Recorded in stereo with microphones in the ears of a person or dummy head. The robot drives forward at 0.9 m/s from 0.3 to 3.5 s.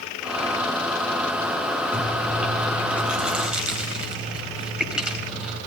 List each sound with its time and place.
1.9 s chewing: 5° right (ahead or behind), 2.5 m